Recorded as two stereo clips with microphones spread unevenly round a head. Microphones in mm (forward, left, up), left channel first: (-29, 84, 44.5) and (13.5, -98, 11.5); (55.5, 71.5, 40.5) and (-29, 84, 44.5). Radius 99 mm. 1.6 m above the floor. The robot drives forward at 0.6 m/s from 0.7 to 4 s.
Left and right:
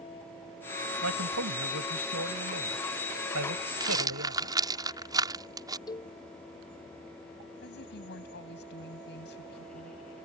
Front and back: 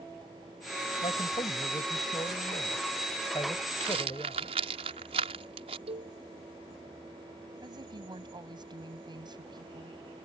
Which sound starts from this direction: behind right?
A rattle, at 3.8 s.